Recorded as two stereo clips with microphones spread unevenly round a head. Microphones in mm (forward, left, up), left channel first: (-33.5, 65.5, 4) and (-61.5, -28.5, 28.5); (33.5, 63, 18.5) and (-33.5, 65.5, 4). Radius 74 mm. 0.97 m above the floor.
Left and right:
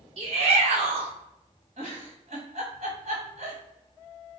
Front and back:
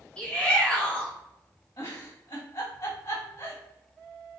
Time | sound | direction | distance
0.2 | a shout | 90° right | 1.1 m
1.8 | a giggle | 60° right | 1.7 m